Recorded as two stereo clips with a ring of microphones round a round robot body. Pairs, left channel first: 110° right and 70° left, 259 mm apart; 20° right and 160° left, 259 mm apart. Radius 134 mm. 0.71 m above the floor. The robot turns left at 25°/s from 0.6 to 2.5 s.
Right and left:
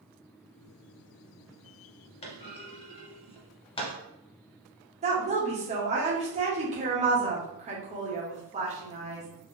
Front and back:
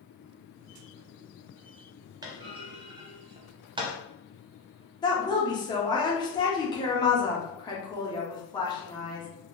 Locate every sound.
2.2 s a clunk: 145° right, 0.5 m; by 3.9 s 155° right, 0.5 m
5.0 s a woman speaking: 35° left, 1.1 m